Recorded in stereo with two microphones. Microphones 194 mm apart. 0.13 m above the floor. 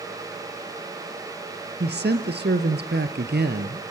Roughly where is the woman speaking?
Right.